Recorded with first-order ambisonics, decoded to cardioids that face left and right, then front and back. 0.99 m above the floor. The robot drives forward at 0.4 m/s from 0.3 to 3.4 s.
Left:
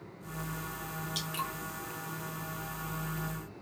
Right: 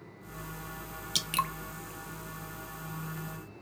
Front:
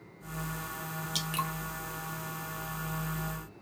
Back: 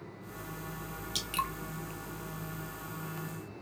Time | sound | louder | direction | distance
1.1 | dripping | right 7 dB, even | 90° right | 0.6 m